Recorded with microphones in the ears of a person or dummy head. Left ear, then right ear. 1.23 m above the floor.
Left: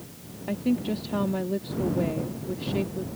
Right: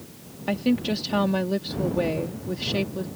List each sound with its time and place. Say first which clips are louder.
0.5 s a woman speaking: right 3 dB; 50° right (ahead or behind)